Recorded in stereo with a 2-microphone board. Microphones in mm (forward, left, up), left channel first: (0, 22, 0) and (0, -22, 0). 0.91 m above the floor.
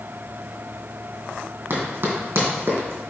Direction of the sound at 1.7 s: 60° right (ahead or behind).